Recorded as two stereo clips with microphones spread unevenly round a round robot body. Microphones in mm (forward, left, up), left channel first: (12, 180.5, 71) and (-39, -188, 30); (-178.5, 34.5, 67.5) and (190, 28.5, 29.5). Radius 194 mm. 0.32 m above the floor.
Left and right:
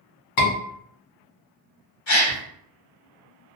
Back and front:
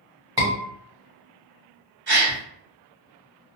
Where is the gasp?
50° left, 1.6 m.